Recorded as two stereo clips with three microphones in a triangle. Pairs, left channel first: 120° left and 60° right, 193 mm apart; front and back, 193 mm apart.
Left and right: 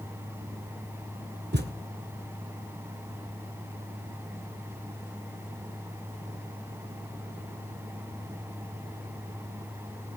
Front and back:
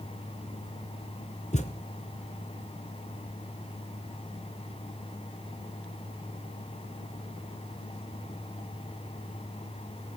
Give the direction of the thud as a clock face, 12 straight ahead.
2 o'clock.